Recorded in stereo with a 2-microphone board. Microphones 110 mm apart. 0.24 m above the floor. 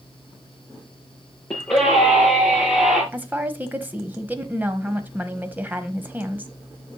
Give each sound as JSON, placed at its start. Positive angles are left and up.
{"t": 1.5, "sound": "a scream", "side_deg": 10, "distance_m": 6.0}
{"t": 3.1, "sound": "a woman speaking", "side_deg": -15, "distance_m": 1.1}